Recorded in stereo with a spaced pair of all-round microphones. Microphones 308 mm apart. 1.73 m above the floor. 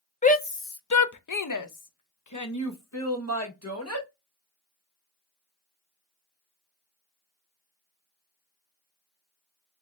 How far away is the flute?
I don't hear a flute.